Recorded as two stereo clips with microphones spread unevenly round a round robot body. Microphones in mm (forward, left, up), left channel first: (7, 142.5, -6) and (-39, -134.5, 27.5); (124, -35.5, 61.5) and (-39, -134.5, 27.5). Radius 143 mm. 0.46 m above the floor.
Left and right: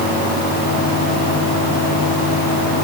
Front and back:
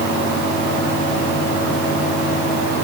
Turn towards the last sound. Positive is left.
No sound to turn to.